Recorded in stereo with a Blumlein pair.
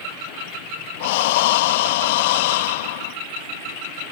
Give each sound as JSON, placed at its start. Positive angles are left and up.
{"t": 1.0, "sound": "breathing", "azimuth_deg": 50}